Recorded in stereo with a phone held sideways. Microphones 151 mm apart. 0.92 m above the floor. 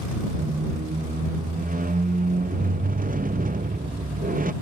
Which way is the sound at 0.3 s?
65° right (ahead or behind).